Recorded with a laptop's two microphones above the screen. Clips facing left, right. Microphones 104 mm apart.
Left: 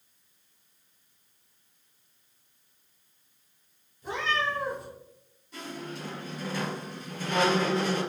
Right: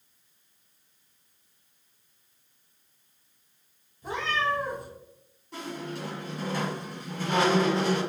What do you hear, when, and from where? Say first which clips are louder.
4.0 s a cat meowing: right 1 dB; 45° right (ahead or behind), 1.1 m
5.5 s a squeak: right 3 dB; 65° right (ahead or behind), 1.5 m